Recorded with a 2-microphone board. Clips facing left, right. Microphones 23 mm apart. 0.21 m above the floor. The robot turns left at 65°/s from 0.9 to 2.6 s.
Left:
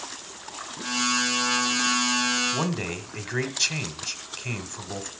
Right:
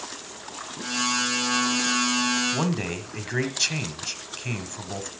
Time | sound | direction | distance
2.5 | a man speaking | centre (ahead or behind) | 1.3 m